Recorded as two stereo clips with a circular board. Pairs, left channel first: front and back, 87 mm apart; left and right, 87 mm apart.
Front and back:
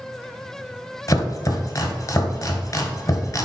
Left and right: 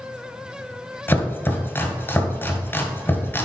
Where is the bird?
No bird in this recording.